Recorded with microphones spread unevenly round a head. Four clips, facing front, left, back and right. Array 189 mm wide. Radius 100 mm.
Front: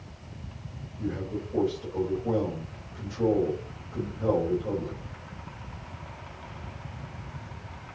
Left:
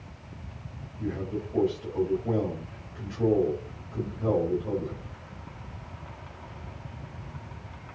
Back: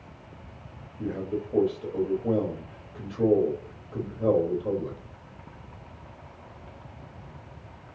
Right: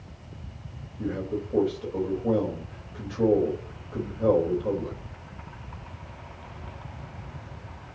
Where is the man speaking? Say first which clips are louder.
Right 2 dB, back 2 dB; 125° right, 5.5 m.